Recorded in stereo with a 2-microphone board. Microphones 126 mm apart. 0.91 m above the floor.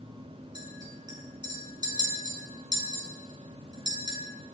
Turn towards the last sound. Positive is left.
turn(degrees=-35)  # may be behind; listen again after turning